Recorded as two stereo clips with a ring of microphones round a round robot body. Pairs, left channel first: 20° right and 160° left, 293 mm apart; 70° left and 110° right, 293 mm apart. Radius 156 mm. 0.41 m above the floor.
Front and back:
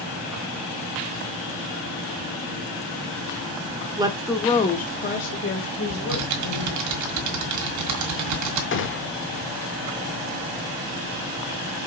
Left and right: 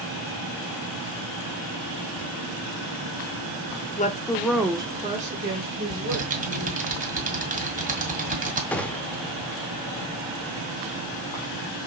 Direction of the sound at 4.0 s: 100° left.